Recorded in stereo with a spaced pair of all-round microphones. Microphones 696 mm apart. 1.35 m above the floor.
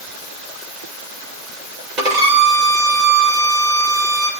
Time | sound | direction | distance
2.0 | a violin | 80° right | 3 m